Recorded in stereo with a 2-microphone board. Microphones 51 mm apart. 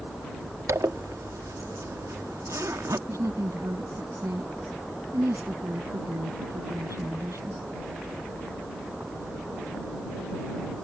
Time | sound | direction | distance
0.7 | a zipper | 75° right (ahead or behind) | ?
3.1 | a woman speaking | 70° right (ahead or behind) | ?